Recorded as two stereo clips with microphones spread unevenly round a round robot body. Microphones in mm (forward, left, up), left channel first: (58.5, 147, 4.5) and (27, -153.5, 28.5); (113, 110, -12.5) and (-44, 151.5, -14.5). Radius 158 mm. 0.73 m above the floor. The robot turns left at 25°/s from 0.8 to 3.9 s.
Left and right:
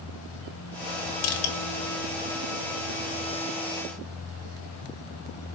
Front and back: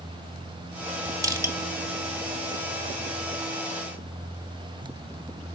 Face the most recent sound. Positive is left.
turn(degrees=30)